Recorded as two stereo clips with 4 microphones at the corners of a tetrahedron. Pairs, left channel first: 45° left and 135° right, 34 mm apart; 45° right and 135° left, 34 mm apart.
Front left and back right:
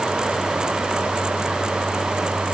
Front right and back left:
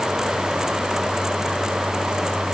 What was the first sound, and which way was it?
Only background noise.